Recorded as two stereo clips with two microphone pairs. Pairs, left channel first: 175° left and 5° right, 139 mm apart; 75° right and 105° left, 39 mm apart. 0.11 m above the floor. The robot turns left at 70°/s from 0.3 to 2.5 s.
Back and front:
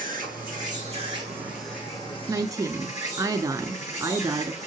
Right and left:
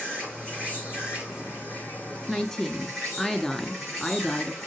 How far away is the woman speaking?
About 1.1 m.